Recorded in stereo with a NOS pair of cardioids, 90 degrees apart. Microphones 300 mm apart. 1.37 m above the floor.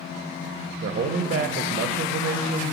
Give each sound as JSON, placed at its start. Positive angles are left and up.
{"t": 0.8, "sound": "a man speaking", "azimuth_deg": -35, "distance_m": 0.7}